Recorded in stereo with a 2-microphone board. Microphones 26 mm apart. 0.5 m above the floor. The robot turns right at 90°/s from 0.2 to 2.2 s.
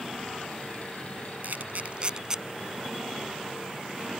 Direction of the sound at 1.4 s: 80° right.